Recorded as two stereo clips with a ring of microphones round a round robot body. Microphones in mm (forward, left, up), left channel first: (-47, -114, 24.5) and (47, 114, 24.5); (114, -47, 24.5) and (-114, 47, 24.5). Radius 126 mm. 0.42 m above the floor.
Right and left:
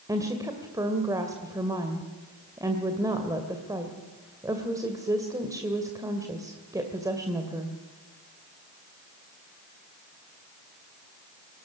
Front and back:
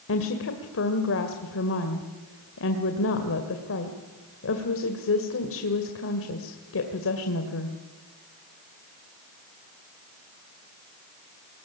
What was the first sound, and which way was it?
A woman speaking, 5° right.